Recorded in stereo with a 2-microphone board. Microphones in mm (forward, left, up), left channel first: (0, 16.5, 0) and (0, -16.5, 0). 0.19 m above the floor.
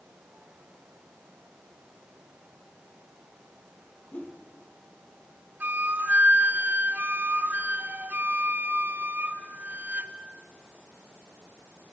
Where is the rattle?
No rattle in this recording.